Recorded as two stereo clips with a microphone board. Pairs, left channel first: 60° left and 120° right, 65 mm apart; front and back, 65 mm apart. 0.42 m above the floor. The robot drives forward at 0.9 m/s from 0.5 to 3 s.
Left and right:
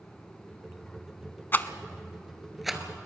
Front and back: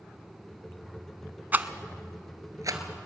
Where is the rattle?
120° left, 0.8 m; by 2.8 s 155° left, 1.7 m.